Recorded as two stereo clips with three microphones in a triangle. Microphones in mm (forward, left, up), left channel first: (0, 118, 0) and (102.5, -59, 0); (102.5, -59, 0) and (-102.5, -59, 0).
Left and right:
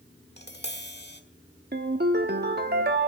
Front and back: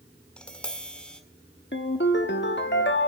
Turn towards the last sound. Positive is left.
turn(degrees=-25)